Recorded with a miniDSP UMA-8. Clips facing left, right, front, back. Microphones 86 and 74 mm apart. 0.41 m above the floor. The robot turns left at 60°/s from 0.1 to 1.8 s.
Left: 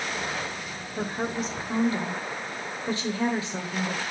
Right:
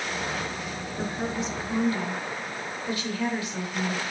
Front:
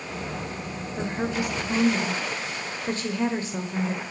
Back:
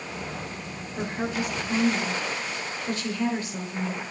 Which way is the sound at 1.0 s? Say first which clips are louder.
Left 1 dB, front 1 dB; 90° left.